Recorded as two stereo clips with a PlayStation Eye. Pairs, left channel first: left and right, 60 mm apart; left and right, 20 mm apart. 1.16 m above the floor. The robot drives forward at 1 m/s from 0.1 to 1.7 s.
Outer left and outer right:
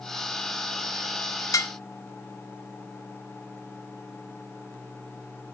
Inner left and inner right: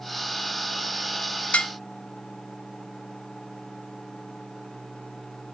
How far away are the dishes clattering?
About 0.8 m.